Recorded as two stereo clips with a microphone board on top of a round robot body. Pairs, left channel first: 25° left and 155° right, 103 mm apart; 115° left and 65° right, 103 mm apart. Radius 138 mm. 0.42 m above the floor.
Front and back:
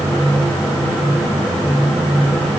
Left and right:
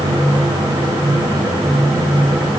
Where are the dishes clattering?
No dishes clattering in this recording.